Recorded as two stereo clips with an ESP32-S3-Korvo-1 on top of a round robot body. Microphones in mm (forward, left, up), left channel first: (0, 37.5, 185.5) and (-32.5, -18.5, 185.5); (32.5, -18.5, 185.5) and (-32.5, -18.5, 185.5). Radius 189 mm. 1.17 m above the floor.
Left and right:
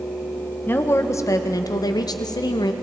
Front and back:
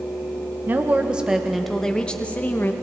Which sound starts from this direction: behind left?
A woman speaking, at 0.7 s.